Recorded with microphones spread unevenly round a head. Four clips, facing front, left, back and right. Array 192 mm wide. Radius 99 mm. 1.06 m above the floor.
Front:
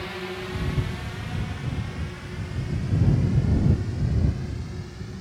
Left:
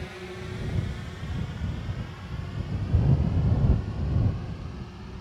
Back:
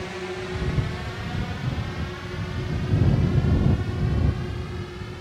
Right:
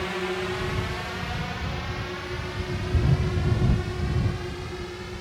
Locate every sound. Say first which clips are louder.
0.0 s a drone: right 10 dB, back 2 dB; 95° right; by 5.2 s 120° right